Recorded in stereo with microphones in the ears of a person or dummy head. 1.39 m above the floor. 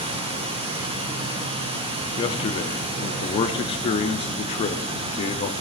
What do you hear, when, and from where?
0.0 s running water: 25° right (ahead or behind), 0.8 m
2.2 s a man speaking: 35° left (ahead or behind), 0.6 m